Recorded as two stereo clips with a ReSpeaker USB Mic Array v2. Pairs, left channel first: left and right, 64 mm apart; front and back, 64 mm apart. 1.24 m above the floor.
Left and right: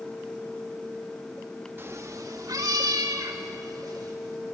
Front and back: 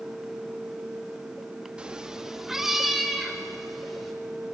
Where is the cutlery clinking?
I don't hear cutlery clinking.